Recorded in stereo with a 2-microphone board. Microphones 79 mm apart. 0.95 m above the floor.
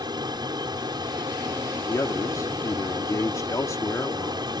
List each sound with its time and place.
0.0 s an aircraft: 65° right (ahead or behind)
1.9 s a man speaking: 45° left (ahead or behind)